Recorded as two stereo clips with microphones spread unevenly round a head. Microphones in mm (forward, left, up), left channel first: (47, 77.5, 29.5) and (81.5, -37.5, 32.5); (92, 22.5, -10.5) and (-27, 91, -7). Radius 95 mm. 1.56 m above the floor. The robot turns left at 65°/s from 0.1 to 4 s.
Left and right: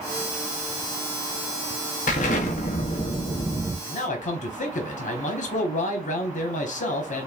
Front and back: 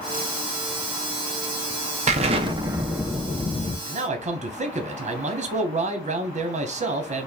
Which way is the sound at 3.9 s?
125° left.